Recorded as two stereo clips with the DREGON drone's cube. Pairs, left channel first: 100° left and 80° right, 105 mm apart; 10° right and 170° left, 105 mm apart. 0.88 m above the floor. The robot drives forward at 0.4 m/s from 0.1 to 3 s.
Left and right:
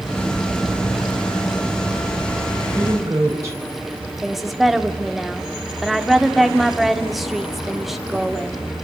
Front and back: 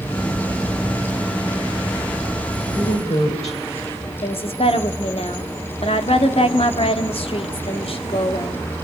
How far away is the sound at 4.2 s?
About 2 m.